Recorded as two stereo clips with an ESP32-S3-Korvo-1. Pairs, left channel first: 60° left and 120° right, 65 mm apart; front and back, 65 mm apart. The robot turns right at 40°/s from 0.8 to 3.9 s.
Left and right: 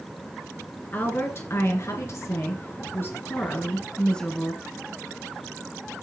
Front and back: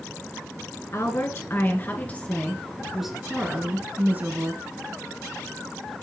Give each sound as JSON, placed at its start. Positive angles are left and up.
{"t": 0.9, "sound": "a woman speaking", "azimuth_deg": 10, "distance_m": 1.6}